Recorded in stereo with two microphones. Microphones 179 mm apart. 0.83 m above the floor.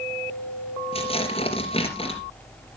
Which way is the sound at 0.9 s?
35° left (ahead or behind).